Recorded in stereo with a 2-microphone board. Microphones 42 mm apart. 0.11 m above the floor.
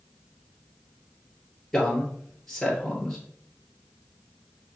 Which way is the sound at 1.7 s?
5° left (ahead or behind).